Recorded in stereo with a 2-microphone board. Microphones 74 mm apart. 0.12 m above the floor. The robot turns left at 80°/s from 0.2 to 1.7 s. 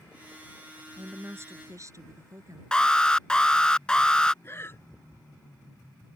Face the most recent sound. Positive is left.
turn(degrees=35)  # may be behind; listen again after turning